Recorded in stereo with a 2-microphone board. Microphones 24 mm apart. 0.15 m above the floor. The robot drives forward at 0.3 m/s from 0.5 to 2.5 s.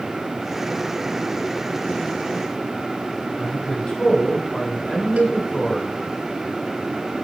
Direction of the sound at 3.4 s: 35° left (ahead or behind).